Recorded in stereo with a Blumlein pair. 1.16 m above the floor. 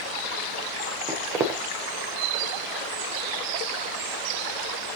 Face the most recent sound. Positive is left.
turn(degrees=-25)